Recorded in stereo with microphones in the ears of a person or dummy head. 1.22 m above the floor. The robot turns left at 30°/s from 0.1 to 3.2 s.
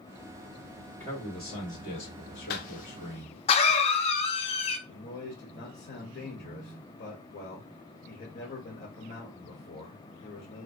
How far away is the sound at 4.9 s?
About 1.2 m.